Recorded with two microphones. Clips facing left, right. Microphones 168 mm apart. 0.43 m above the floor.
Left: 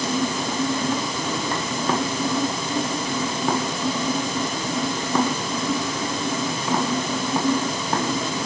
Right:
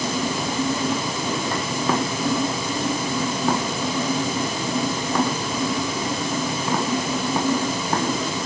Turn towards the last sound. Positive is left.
No sound to turn to.